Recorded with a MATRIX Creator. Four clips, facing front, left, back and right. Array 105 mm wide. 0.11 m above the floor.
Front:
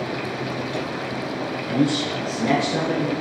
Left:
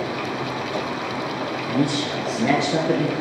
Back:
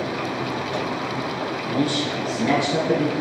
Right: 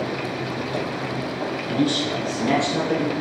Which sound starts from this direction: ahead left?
A man speaking, at 1.7 s.